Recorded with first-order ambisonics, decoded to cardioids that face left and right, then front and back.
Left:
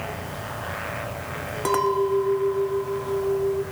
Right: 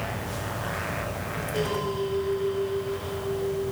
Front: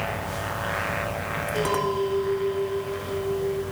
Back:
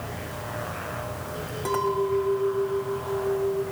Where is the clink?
75° left, 0.8 m.